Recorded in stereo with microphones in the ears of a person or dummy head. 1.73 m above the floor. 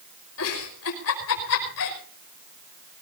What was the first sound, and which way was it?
A giggle, 80° left.